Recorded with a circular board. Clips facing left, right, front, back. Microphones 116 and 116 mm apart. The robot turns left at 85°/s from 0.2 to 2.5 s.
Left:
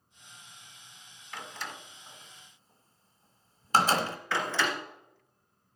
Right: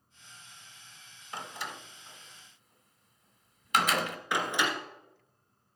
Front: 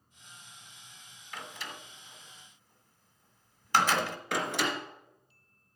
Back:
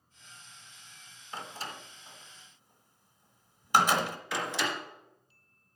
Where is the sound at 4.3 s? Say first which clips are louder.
Even, front 2 dB; 15° right, 2 m.